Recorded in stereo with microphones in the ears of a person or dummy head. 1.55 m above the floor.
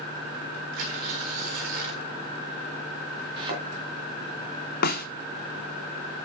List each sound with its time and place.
0.7 s tearing paper: 50° right (ahead or behind), 1.7 m
3.4 s a thud: 35° right (ahead or behind), 3 m
4.8 s a snare drum: 60° left (ahead or behind), 1.0 m